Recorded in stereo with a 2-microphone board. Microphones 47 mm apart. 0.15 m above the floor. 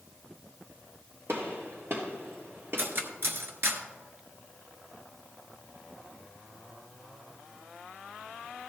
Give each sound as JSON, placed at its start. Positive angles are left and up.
{"t": 1.3, "sound": "a gunshot", "side_deg": -60, "distance_m": 3.5}
{"t": 2.8, "sound": "cutlery clinking", "side_deg": -50, "distance_m": 1.3}